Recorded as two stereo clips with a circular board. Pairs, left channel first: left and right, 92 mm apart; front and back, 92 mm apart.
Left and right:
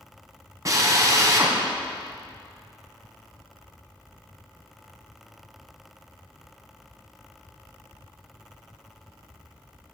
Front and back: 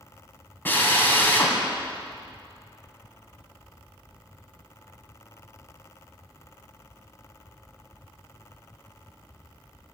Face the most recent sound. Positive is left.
turn(degrees=-60)